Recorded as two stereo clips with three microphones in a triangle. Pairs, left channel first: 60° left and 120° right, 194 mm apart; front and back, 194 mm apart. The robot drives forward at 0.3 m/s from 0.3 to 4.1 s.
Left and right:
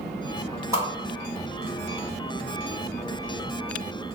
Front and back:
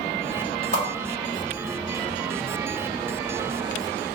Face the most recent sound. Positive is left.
turn(degrees=-80)